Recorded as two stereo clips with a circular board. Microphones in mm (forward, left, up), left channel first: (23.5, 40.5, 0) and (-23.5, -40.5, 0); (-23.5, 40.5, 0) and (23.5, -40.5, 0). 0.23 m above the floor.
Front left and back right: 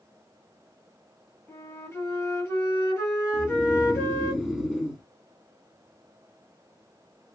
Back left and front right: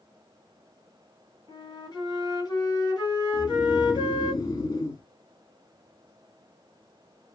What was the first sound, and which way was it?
A flute, 115° left.